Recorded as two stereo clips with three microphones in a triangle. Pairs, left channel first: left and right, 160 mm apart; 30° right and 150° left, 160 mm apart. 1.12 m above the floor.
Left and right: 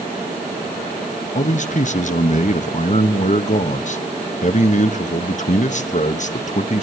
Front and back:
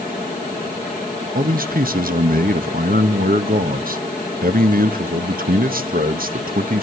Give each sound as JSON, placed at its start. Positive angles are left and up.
{"t": 1.4, "sound": "a man speaking", "azimuth_deg": 130, "distance_m": 0.9}